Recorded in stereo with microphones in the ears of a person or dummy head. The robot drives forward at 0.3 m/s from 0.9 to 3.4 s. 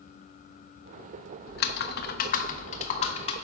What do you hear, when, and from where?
1.5 s typing on a keyboard: 40° left (ahead or behind), 0.5 m; by 3.4 s 30° left (ahead or behind), 0.7 m